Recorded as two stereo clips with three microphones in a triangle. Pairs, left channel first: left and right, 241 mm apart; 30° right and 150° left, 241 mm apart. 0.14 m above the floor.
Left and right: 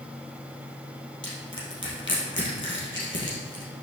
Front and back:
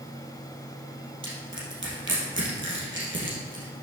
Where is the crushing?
120° left, 2.5 m.